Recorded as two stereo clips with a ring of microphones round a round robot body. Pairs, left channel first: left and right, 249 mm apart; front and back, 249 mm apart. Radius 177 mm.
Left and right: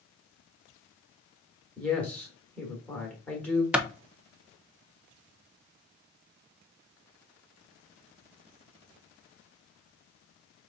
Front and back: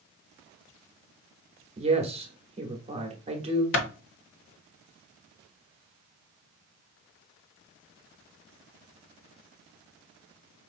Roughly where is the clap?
Ahead.